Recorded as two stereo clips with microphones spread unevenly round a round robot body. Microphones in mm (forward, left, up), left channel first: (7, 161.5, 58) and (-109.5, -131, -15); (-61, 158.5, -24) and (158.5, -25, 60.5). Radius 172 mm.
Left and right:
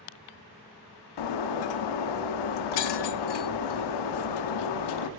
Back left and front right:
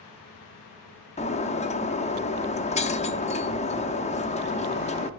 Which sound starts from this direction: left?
Breaking glass, at 1.2 s.